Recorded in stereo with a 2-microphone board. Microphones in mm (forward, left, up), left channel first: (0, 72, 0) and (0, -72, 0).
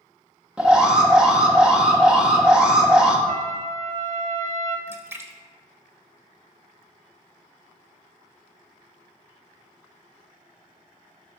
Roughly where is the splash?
Centre.